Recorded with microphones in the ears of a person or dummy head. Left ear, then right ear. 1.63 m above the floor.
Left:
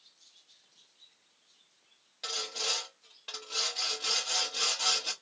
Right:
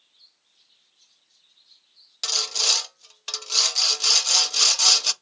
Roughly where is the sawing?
Right.